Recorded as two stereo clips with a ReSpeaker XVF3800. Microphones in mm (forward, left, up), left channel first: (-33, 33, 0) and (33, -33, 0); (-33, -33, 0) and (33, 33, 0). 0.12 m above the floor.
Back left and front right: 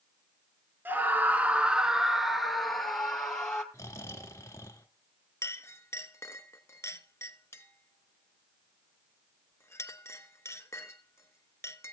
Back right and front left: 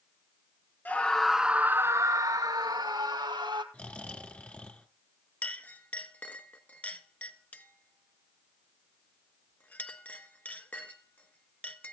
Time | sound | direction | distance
0.8 | a scream | 85° right | 1.2 m
3.7 | snoring | 160° left | 1.5 m
5.4 | a clink | 165° left | 1.1 m